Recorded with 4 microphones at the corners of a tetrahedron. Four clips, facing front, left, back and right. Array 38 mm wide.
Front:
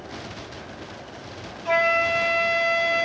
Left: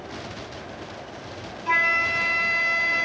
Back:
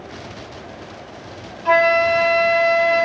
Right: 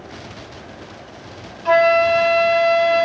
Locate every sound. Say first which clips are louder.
1.6 s a flute: right 7 dB, back 6 dB; 115° right, 2 m